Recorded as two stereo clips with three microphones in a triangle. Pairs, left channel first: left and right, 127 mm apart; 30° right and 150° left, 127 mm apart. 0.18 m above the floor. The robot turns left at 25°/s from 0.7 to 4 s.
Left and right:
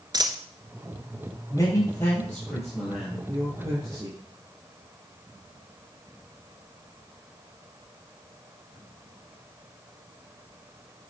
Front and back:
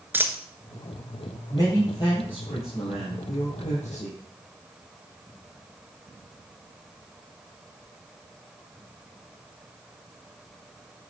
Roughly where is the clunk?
I don't hear a clunk.